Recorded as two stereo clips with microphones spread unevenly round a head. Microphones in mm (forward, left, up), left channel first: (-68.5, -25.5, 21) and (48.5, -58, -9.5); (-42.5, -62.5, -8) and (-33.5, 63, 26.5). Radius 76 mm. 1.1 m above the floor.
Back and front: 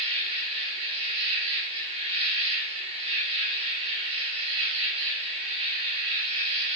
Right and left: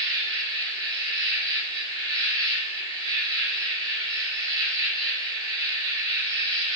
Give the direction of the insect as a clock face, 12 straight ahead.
11 o'clock.